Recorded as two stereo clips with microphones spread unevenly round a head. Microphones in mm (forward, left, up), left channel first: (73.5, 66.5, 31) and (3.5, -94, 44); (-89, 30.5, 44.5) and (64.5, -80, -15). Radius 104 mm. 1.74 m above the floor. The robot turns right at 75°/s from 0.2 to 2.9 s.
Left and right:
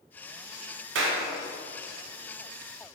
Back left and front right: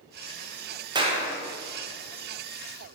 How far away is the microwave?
No microwave in this recording.